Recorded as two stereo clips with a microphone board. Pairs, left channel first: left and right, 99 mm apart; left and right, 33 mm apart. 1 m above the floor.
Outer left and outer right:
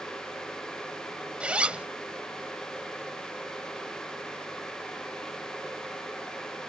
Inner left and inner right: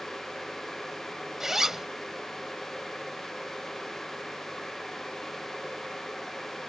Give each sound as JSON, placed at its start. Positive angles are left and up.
{"t": 1.4, "sound": "a zipper", "side_deg": -10}